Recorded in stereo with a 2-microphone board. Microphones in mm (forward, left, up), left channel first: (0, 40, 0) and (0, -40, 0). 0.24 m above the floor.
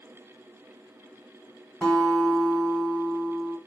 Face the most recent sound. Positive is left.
turn(degrees=10)  # may be behind; listen again after turning